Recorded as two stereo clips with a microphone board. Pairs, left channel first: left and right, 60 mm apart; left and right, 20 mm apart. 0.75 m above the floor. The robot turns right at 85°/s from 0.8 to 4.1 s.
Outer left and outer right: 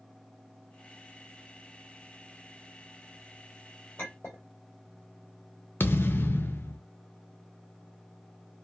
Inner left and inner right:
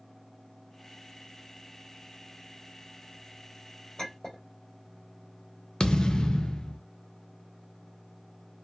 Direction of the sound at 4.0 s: 40° left (ahead or behind).